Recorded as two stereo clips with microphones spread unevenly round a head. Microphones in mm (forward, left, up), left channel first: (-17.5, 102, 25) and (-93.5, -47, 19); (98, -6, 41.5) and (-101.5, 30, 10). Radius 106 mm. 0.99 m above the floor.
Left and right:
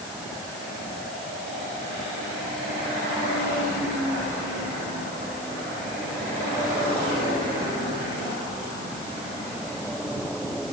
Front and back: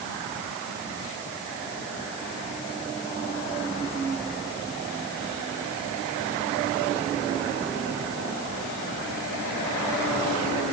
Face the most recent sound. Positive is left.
No sound to turn to.